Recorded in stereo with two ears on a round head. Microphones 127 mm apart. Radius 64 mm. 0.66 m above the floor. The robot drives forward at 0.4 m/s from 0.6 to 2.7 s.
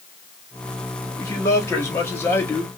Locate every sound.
1.2 s a man speaking: 25° left (ahead or behind), 1.2 m; by 2.7 s 15° left (ahead or behind), 1.6 m